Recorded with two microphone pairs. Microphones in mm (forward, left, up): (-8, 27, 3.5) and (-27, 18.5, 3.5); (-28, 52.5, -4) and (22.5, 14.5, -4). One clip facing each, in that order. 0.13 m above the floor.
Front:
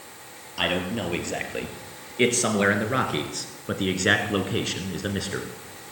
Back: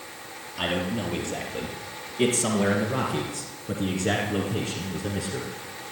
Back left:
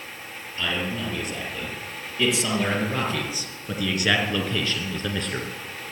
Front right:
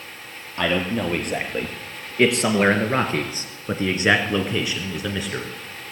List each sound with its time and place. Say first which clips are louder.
0.6 s a man speaking: front 2 dB, front right 6 dB; 40° right, 3 m; by 5.5 s 55° left, 1.7 m